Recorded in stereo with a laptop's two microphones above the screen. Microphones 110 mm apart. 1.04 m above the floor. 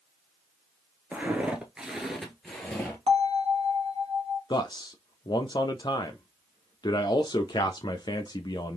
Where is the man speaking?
40° left (ahead or behind), 0.6 m.